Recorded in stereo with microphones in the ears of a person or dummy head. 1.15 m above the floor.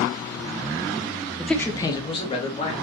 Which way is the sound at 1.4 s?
5° right (ahead or behind).